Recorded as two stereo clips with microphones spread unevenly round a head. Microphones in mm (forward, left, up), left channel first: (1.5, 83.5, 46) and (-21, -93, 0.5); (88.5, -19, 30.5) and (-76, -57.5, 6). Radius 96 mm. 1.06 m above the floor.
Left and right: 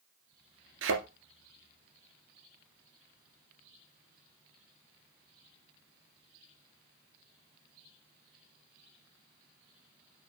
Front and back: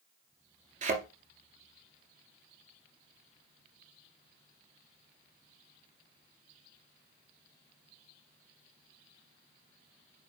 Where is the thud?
120° right, 2 m.